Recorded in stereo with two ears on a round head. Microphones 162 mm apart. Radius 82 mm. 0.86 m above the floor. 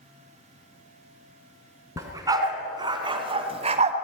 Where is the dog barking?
20° right (ahead or behind), 3 m; by 3.9 s 40° right (ahead or behind), 1.9 m.